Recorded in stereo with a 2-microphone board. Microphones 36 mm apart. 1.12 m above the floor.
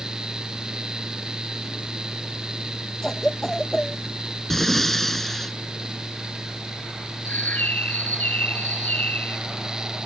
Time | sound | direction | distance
3.0 | a cough | 20° left (ahead or behind) | ?
4.5 | breathing | 10° left (ahead or behind) | ?
7.2 | a bird | 55° left (ahead or behind) | ?